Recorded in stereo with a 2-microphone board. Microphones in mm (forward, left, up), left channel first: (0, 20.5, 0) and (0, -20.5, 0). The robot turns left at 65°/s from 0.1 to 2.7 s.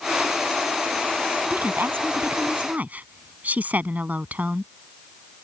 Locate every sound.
1.5 s a woman speaking: 55° right; by 4.7 s 130° right